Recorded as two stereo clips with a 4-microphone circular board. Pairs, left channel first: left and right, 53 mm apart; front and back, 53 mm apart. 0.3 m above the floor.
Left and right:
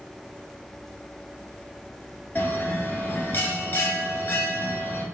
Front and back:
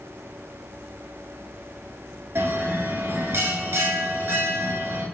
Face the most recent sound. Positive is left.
turn(degrees=140)